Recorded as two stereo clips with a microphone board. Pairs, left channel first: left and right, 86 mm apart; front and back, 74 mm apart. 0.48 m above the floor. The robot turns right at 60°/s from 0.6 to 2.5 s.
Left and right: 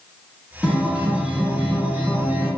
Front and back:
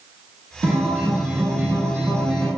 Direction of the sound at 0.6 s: Straight behind.